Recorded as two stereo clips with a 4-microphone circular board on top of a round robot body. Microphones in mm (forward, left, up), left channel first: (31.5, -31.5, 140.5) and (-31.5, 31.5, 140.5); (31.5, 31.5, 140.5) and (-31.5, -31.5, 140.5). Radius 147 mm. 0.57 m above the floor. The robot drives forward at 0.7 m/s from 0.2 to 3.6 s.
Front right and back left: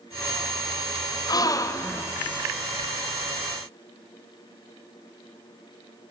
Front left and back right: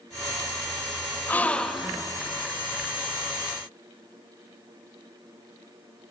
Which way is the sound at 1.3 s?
20° right.